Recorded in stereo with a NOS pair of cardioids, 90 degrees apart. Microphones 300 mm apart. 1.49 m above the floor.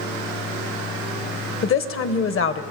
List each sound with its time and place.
1.6 s a woman speaking: 45° left, 1.2 m